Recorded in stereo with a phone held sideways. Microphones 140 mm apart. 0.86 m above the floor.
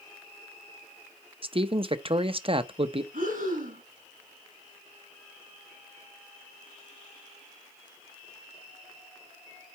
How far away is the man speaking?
About 0.7 m.